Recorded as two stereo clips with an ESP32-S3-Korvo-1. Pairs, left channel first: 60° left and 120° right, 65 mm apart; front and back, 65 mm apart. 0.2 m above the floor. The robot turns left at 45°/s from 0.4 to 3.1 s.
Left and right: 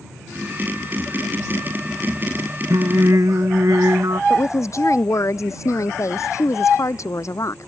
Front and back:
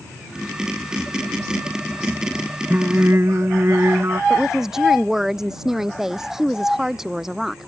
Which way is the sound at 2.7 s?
120° right.